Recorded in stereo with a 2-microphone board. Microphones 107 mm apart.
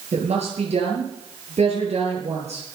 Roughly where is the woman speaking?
Right.